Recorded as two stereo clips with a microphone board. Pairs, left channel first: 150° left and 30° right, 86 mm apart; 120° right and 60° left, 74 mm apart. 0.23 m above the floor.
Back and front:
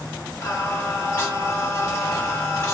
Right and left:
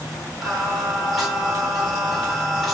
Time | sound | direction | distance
0.4 | singing | 145° left | 1.3 m